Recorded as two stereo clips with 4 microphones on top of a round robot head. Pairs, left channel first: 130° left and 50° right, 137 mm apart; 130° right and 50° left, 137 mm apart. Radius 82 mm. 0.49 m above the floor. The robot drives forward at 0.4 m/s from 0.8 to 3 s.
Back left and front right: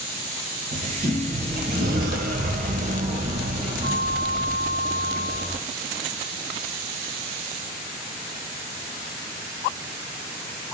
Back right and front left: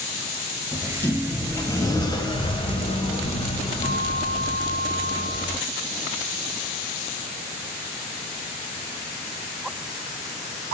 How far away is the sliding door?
About 1.7 m.